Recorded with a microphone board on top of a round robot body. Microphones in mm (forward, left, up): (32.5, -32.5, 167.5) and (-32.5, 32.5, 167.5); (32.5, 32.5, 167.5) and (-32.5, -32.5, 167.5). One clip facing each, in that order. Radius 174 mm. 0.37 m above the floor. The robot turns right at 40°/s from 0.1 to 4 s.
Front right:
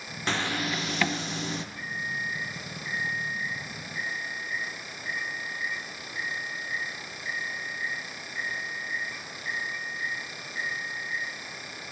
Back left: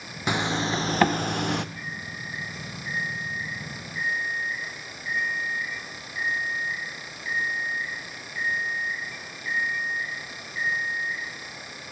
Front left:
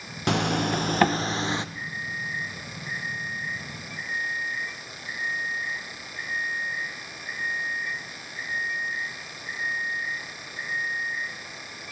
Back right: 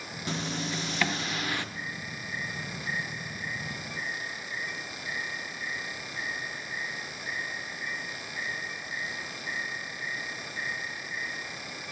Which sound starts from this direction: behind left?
An alarm clock, at 1.8 s.